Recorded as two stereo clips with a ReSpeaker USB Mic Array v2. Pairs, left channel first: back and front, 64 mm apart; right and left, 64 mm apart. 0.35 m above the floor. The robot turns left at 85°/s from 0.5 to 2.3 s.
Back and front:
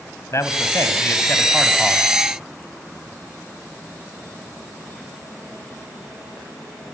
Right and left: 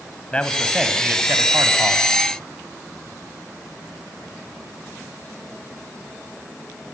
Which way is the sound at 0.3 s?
160° right.